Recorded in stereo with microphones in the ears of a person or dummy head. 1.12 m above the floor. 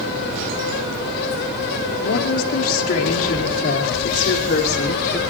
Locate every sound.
2.0 s a woman speaking: 85° left, 2.5 m; by 5.2 s 50° left (ahead or behind), 3 m